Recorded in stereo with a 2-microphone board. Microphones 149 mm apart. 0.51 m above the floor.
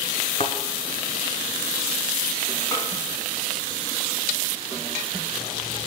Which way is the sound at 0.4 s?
50° left (ahead or behind).